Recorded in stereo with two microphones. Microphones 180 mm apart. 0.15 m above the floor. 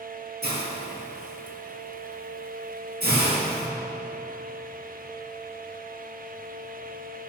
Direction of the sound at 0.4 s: 65° right (ahead or behind).